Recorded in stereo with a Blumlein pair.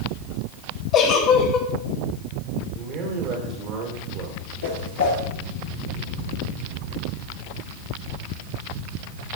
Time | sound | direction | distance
0.9 | a giggle | 30° left | 1.8 m
2.7 | a man speaking | 40° right | 3 m
4.6 | a whoosh | 65° left | 3.5 m